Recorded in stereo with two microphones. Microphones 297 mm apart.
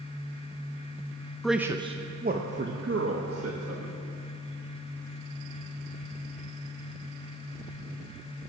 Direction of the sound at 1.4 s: Centre (ahead or behind).